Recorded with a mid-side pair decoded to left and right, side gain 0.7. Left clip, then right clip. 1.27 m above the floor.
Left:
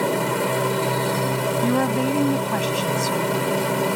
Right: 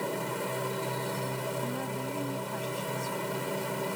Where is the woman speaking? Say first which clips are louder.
Left 13 dB; 55° left.